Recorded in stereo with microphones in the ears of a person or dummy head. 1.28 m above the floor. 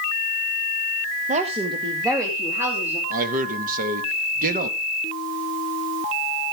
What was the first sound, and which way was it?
A woman speaking, 40° right (ahead or behind).